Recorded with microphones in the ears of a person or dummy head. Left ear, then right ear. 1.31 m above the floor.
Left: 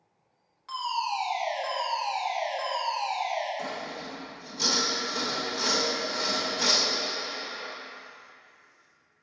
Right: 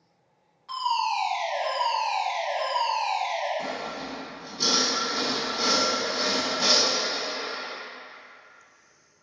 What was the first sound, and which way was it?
A fire alarm, 50° left (ahead or behind).